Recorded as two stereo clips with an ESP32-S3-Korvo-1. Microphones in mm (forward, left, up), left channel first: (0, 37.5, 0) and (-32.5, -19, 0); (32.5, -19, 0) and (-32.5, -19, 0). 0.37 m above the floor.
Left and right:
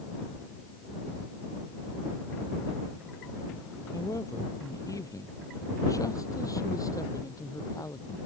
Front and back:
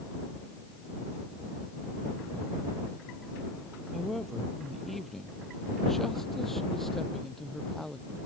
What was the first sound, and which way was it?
A woman speaking, 90° left.